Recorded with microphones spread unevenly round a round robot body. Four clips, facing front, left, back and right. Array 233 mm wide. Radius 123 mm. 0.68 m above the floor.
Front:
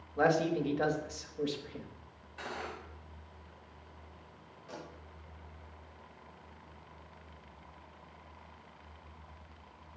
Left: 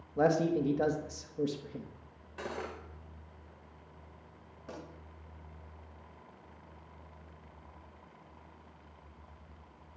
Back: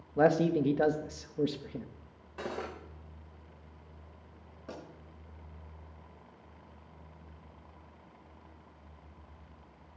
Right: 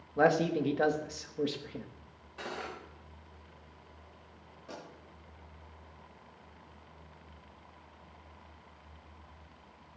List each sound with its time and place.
0.2 s a man speaking: 175° right, 1.0 m
2.4 s cutlery clinking: 160° left, 1.7 m
4.7 s a pop: 160° left, 7 m